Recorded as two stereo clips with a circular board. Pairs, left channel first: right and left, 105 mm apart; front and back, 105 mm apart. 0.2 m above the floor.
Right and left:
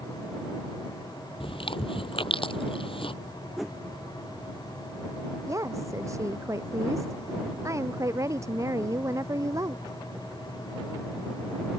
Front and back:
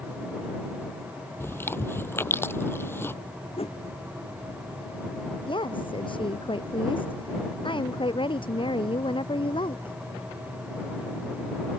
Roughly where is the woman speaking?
Ahead left.